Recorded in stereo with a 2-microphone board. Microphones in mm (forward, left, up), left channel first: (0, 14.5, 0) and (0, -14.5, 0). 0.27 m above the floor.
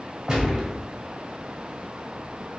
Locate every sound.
0.3 s a gunshot: 20° right (ahead or behind), 1.1 m